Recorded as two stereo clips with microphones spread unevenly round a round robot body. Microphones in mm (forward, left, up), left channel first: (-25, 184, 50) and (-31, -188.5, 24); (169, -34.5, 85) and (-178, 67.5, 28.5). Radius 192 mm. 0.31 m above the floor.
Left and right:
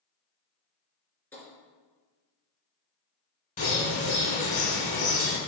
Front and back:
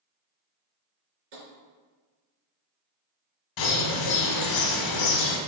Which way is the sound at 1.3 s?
175° left.